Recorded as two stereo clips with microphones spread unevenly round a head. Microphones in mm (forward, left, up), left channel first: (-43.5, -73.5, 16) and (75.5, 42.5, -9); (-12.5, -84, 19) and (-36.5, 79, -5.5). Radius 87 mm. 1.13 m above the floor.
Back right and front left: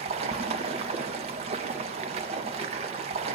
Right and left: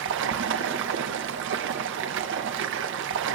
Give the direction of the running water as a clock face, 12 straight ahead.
9 o'clock.